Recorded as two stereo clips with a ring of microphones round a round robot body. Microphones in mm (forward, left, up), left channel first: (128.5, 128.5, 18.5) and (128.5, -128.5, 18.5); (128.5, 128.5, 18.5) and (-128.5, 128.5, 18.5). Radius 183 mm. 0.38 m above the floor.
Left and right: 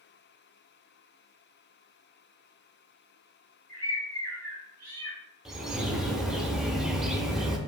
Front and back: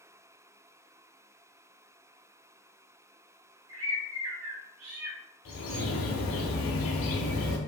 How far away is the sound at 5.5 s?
About 0.6 m.